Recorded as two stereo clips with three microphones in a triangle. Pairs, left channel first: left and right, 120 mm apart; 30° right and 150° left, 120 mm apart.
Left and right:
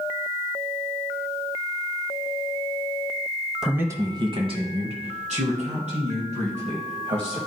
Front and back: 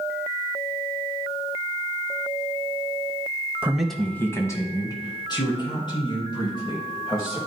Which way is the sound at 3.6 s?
165° right.